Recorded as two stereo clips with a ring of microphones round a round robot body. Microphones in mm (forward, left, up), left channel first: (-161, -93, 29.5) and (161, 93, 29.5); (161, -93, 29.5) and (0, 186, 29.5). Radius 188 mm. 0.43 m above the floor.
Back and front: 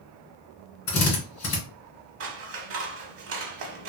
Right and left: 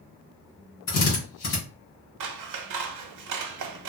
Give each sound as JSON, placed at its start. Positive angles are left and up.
{"t": 0.9, "sound": "a drill", "azimuth_deg": -110, "distance_m": 2.0}
{"t": 2.2, "sound": "scissors", "azimuth_deg": 85, "distance_m": 0.7}